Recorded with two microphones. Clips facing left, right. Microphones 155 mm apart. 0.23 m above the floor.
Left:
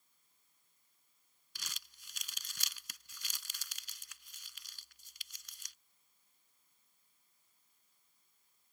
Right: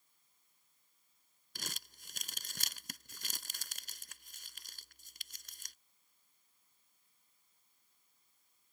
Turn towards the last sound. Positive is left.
turn(degrees=-50)  # may be behind; listen again after turning